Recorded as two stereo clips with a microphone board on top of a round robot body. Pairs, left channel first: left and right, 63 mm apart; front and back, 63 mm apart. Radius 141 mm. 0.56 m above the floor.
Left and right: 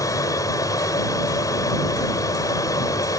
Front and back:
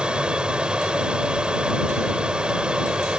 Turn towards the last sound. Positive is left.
turn(degrees=105)